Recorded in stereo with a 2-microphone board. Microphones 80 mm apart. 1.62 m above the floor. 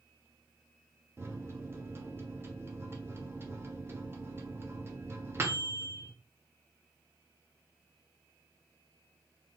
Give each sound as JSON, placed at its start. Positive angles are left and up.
{"t": 1.2, "sound": "a microwave", "side_deg": -30, "distance_m": 0.6}